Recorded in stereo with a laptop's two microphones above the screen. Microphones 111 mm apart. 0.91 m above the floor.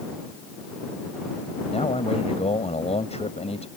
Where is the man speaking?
75° left (ahead or behind).